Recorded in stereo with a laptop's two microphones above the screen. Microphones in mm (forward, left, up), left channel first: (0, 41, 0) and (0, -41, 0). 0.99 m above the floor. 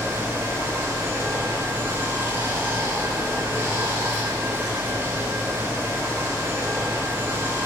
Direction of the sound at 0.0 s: 30° right (ahead or behind).